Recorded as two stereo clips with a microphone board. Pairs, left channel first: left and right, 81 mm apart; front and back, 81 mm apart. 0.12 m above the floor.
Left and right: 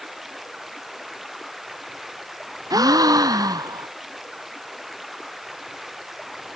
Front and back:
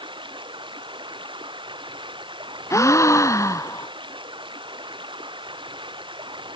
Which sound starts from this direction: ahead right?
A gasp, at 2.7 s.